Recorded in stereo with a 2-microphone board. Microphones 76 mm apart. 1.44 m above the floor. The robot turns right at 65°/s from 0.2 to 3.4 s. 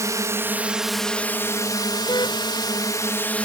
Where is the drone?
45° right; by 3.5 s 160° left.